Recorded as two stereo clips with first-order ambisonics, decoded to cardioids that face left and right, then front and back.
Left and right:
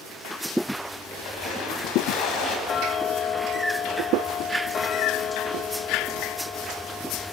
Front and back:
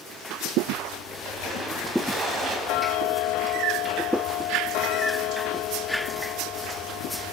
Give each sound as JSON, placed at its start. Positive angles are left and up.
{"t": 1.1, "sound": "a splash", "azimuth_deg": 120, "distance_m": 5.0}
{"t": 2.7, "sound": "ticking", "azimuth_deg": 30, "distance_m": 0.5}